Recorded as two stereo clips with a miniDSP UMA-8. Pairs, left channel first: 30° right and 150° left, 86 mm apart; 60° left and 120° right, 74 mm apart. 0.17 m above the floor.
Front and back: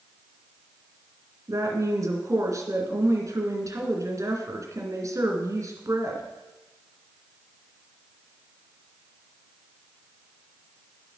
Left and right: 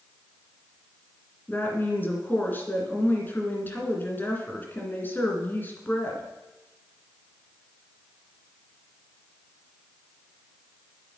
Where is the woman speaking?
115° left, 2.0 m.